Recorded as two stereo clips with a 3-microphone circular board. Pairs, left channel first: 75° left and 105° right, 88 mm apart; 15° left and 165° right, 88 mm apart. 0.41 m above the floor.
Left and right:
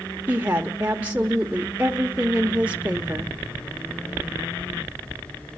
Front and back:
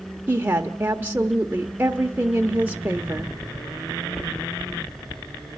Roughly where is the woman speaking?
Behind right.